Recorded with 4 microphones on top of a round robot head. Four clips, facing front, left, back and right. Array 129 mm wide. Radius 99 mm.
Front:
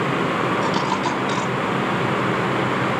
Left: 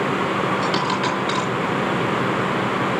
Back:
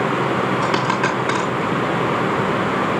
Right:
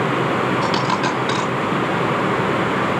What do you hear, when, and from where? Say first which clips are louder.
0.6 s a dropped coin: right 2 dB, back 2 dB; 155° right, 4 m